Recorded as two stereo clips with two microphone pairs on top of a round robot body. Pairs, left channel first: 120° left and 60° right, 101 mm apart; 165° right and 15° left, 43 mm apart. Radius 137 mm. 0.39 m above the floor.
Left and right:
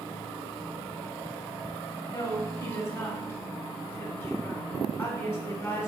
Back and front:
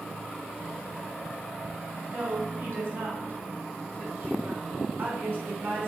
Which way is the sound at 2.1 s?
60° left.